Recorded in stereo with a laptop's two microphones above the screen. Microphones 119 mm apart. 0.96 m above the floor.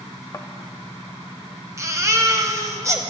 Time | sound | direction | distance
0.3 | a thud | 30° left (ahead or behind) | 0.8 m
1.8 | a baby crying | 25° right (ahead or behind) | 0.7 m